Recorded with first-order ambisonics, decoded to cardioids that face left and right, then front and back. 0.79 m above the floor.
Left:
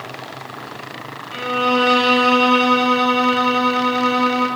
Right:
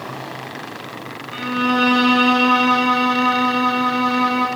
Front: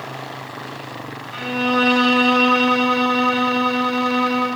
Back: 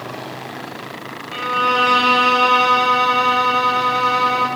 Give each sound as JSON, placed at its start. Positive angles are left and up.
{"t": 1.3, "sound": "a violin", "azimuth_deg": 150, "distance_m": 0.8}